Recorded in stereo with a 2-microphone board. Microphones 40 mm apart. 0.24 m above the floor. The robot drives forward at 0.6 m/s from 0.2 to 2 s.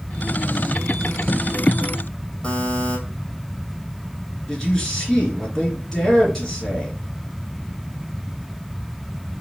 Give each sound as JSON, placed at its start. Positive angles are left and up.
{"t": 2.4, "sound": "a buzzer", "side_deg": 25, "distance_m": 2.0}
{"t": 4.5, "sound": "a man speaking", "side_deg": 15, "distance_m": 3.0}